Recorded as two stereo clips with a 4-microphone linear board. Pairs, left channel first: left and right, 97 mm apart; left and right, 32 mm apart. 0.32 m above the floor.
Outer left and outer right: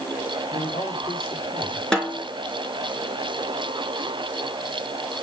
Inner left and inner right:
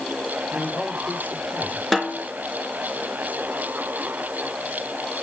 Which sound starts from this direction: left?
A man speaking, at 0.5 s.